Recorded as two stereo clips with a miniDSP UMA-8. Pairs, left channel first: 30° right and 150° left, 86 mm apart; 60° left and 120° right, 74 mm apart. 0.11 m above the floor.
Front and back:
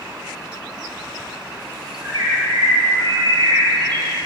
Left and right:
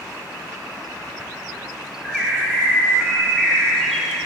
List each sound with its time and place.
2.0 s a bird: 155° left, 2.5 m